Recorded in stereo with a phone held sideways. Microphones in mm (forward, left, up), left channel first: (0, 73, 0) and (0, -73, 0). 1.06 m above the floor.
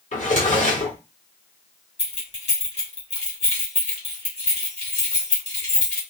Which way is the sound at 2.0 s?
45° left (ahead or behind).